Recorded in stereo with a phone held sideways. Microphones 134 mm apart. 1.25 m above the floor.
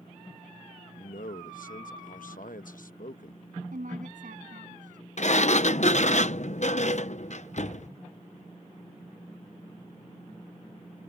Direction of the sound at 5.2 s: 60° left (ahead or behind).